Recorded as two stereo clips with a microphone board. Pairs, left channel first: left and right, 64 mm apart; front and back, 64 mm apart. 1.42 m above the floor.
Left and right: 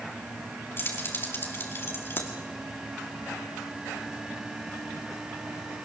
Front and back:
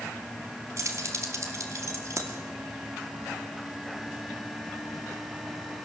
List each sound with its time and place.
0.8 s keys jangling: 140° left, 2.5 m